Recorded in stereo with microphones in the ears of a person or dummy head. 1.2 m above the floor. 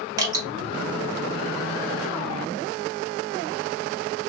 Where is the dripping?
20° right (ahead or behind), 1.4 m.